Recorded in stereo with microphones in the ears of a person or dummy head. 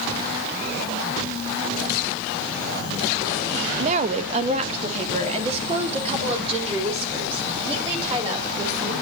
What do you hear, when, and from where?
3.8 s a woman speaking: 40° right (ahead or behind), 0.9 m; by 8.9 s 35° right (ahead or behind), 5 m